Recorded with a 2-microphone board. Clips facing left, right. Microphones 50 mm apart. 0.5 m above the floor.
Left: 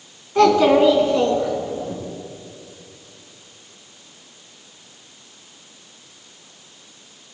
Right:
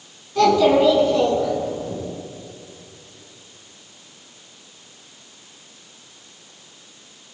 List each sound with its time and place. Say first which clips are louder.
0.3 s a child speaking: left 1 dB; 35° left (ahead or behind), 3 m; by 1.9 s 15° left (ahead or behind), 4 m